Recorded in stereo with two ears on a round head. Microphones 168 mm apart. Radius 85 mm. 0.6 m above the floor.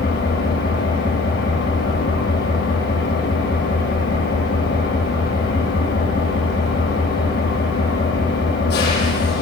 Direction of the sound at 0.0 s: 50° left (ahead or behind).